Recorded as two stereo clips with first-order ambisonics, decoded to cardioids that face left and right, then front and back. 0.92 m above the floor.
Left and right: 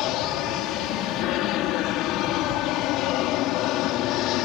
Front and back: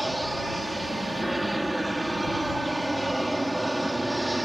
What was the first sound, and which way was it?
An aircraft, 95° left.